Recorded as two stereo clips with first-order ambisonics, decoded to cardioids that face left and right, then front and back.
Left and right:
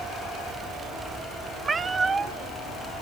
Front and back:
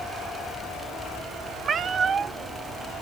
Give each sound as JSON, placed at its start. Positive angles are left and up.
{"t": 1.6, "sound": "a cat meowing", "azimuth_deg": -145, "distance_m": 0.7}